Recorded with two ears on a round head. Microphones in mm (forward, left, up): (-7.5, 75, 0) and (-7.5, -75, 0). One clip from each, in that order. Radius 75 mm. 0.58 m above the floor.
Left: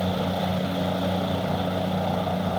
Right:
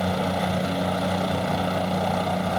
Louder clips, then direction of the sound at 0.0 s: Right 2 dB; 55° right (ahead or behind).